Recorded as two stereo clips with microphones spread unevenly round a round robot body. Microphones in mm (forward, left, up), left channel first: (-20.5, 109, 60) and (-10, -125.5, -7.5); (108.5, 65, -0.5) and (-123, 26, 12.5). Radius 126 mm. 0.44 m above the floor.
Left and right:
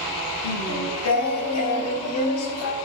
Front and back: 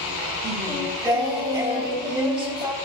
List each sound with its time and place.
0.4 s singing: 120° left, 4 m